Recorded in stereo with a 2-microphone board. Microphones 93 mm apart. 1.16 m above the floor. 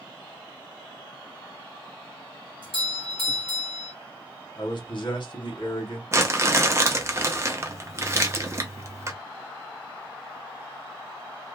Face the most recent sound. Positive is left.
turn(degrees=-30)  # may be behind; listen again after turning